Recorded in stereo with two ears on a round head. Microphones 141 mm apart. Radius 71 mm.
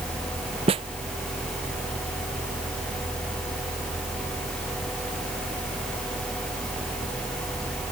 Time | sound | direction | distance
0.7 | a snare drum | 35° right (ahead or behind) | ?